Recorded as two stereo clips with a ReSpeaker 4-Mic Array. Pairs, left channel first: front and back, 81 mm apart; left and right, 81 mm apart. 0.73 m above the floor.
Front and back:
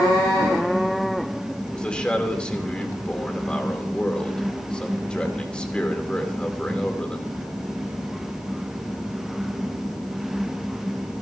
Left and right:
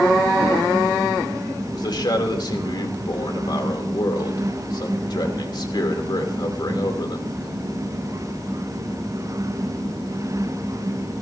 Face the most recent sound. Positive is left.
turn(degrees=75)